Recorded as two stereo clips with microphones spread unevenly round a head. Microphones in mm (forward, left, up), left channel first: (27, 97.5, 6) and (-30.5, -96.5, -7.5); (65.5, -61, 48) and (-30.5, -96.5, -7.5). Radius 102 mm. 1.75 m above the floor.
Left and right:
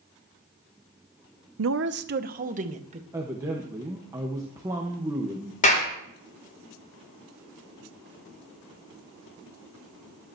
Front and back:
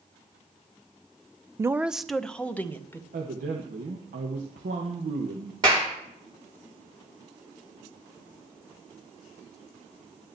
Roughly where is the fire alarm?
I don't hear a fire alarm.